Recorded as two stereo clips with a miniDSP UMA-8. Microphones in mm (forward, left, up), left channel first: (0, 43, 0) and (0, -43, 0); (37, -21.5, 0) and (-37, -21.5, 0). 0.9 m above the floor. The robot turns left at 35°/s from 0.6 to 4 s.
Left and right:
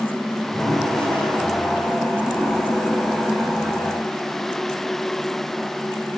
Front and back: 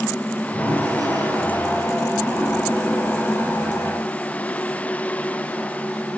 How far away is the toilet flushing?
About 9 m.